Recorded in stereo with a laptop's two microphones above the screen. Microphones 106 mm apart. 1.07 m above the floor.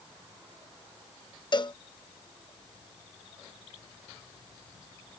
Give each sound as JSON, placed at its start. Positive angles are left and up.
{"t": 1.5, "sound": "a cowbell", "side_deg": 45}